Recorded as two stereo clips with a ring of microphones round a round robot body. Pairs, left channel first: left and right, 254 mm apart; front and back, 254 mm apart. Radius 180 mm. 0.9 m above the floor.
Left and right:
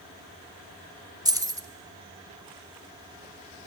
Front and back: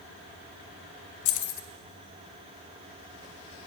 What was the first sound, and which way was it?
Keys jangling, 15° right.